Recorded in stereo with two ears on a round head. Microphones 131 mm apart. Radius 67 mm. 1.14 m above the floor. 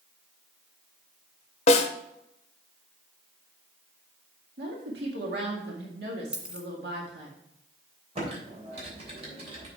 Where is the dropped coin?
5° right (ahead or behind), 1.8 m.